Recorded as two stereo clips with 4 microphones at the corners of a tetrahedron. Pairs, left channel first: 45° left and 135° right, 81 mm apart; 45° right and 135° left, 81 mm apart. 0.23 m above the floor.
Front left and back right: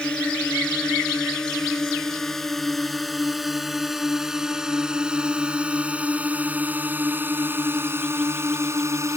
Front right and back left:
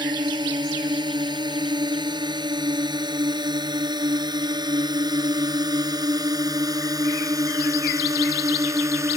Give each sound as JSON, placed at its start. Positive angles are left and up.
{"t": 0.0, "sound": "a drone", "azimuth_deg": 120}